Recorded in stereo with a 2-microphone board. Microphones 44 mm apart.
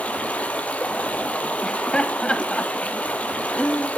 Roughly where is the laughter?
Left.